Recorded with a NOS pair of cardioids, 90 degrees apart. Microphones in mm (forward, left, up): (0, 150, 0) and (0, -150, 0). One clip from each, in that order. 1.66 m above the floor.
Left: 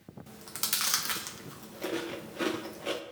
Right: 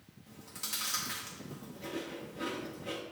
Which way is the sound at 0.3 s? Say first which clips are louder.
Left 6 dB; 55° left.